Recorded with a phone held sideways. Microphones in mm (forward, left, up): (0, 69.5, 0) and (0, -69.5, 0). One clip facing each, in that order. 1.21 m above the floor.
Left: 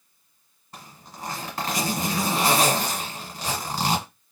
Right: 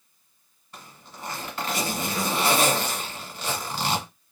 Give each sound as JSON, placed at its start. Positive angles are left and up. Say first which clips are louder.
{"t": 0.7, "sound": "a zipper", "louder": "left 2 dB", "side_deg": 40, "distance_m": 1.6}